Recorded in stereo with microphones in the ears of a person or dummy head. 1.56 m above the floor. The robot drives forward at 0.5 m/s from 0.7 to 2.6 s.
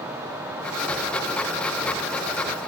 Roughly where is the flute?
I don't hear a flute.